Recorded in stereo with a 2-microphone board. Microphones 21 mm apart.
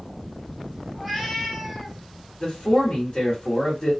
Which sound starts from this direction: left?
A man speaking, at 2.4 s.